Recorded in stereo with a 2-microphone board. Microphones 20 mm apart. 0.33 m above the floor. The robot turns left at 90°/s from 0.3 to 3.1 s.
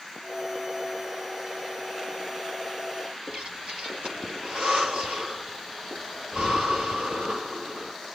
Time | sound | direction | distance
3.3 | breathing | 60° right (ahead or behind) | 3 m